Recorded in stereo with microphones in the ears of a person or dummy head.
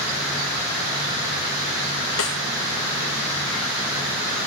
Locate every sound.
2.2 s a snare drum: 80° left, 0.9 m